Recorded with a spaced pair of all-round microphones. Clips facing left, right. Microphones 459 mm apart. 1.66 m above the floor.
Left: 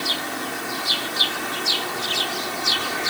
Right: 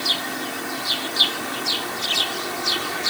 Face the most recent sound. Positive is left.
No sound to turn to.